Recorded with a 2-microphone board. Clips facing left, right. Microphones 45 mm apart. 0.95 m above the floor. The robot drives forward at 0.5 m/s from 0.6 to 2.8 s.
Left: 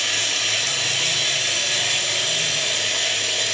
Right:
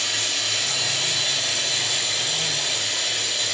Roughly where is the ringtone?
No ringtone in this recording.